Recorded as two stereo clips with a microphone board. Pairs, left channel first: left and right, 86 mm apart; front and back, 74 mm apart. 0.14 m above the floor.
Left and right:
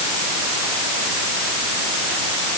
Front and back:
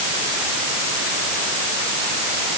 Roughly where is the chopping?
No chopping in this recording.